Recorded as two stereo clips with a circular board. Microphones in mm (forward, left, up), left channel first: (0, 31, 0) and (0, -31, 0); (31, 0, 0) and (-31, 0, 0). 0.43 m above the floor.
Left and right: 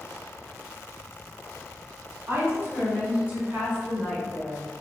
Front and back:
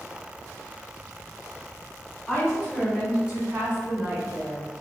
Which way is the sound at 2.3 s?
90° right.